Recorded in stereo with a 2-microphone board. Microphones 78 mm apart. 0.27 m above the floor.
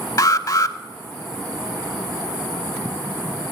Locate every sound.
0.2 s an alarm: 50° left (ahead or behind), 0.8 m